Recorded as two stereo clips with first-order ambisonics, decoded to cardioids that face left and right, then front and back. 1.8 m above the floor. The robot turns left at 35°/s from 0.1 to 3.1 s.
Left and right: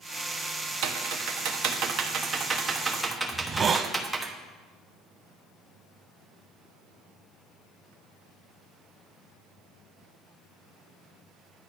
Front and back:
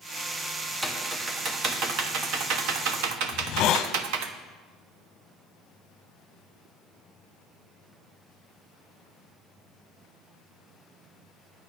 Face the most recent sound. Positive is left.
turn(degrees=-25)